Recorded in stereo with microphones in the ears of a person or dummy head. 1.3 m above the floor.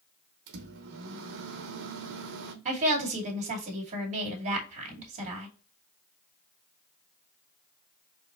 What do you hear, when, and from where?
0.5 s a microwave: 65° right (ahead or behind), 0.7 m
2.6 s a woman speaking: 40° right (ahead or behind), 2.5 m